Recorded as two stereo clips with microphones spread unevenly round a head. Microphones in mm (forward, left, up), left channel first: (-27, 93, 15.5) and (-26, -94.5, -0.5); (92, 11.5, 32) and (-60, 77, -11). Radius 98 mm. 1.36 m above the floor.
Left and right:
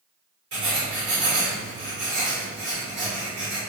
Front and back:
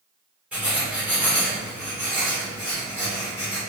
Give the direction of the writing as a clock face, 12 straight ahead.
4 o'clock.